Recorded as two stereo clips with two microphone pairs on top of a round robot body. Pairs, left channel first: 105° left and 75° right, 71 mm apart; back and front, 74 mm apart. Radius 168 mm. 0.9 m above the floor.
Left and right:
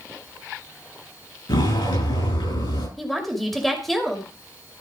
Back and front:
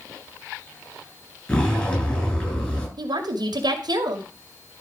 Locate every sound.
1.5 s a zipper: 105° left, 8 m
3.0 s a woman speaking: 15° left, 2.5 m